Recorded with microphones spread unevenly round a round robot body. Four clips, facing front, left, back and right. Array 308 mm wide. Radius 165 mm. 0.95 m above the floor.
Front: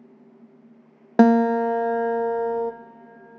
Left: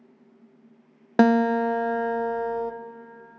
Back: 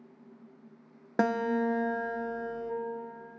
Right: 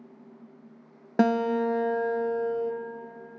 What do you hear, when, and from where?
1.2 s a guitar: straight ahead, 0.5 m